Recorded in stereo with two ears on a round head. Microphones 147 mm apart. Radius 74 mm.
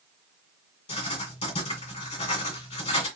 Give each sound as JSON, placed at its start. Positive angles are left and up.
{"t": 0.9, "sound": "writing", "side_deg": 40, "distance_m": 1.7}